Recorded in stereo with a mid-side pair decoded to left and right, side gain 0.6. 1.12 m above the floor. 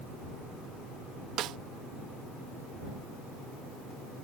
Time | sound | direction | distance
1.4 | a snare drum | 60° right | ?